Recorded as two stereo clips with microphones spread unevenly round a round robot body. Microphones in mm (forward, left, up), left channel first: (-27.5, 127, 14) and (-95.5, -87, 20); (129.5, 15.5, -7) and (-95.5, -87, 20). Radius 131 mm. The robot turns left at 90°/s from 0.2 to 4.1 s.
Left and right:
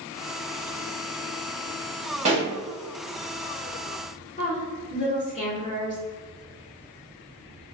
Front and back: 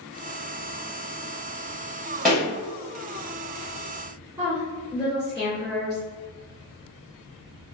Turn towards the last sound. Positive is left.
turn(degrees=125)